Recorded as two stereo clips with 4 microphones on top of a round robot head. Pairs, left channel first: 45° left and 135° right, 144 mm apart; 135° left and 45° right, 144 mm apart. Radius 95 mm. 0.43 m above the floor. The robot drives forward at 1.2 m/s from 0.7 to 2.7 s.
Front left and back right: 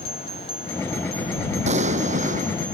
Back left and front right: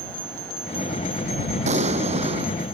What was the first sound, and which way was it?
An explosion, 90° right.